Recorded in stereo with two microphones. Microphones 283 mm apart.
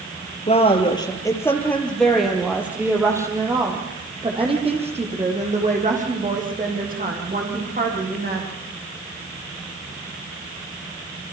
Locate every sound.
0.5 s a woman speaking: 20° left (ahead or behind), 4.5 m; by 8.5 s 35° right (ahead or behind), 11 m